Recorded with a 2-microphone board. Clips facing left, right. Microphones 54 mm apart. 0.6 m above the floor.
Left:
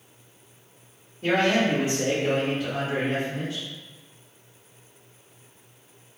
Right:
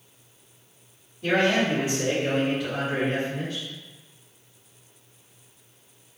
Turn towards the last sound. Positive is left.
turn(degrees=-10)  # may be behind; listen again after turning